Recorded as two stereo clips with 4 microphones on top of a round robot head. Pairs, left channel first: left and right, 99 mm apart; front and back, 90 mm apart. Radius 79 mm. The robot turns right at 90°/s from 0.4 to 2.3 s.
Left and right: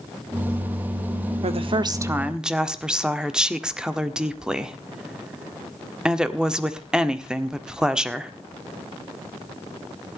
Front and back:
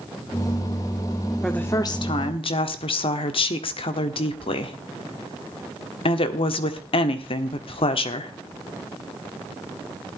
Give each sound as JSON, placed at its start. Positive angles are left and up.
{"t": 1.4, "sound": "a woman speaking", "azimuth_deg": -85, "distance_m": 1.5}